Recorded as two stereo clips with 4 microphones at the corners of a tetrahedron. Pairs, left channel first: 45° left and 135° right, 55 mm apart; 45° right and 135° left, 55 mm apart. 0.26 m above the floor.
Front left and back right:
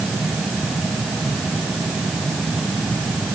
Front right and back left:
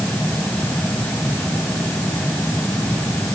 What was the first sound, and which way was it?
Only background noise.